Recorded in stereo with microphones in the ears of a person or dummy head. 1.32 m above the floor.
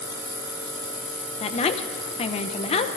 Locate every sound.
1.4 s a woman speaking: 25° left (ahead or behind), 0.5 m